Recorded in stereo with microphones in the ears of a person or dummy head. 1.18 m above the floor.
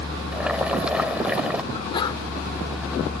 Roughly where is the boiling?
Centre.